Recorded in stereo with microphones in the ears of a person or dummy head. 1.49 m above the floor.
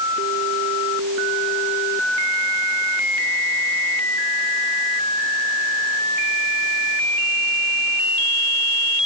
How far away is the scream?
No scream in this recording.